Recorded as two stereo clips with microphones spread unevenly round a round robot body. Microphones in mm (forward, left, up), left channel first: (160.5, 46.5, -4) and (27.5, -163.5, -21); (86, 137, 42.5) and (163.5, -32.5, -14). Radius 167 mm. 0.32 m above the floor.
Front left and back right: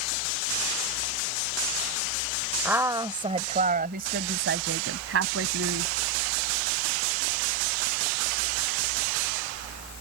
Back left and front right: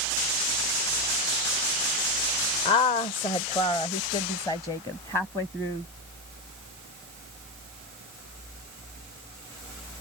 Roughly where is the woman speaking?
Behind.